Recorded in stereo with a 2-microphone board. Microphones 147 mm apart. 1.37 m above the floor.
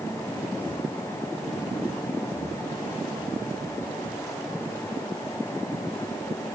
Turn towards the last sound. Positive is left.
No sound to turn to.